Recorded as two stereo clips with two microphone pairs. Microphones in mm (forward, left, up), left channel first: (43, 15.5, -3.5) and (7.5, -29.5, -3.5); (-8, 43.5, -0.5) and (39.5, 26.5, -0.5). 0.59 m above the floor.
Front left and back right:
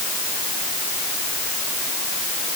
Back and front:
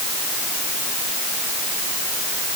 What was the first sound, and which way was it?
Only background noise.